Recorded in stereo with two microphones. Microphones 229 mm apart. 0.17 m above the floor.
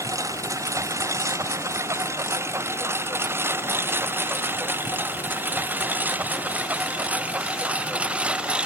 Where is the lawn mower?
15° right (ahead or behind); by 8.7 s 5° right (ahead or behind).